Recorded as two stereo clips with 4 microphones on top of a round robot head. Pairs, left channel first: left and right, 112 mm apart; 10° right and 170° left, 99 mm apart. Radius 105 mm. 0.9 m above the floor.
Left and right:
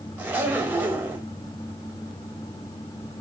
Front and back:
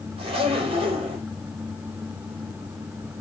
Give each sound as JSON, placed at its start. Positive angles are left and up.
{"t": 0.2, "sound": "a zipper", "azimuth_deg": -165, "distance_m": 0.9}